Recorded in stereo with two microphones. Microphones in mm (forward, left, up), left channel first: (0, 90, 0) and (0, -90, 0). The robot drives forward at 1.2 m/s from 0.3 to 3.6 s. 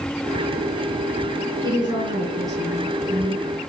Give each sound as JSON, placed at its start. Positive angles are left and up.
{"t": 1.6, "sound": "a woman speaking", "side_deg": -25, "distance_m": 3.5}